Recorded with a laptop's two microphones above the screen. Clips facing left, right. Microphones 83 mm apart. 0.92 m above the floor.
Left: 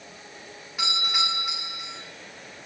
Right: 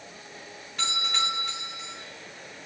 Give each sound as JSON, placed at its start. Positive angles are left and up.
{"t": 0.8, "sound": "a doorbell", "side_deg": 10, "distance_m": 9.0}